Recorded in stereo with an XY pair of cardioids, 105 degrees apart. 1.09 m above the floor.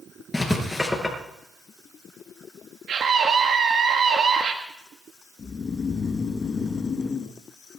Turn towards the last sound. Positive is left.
turn(degrees=40)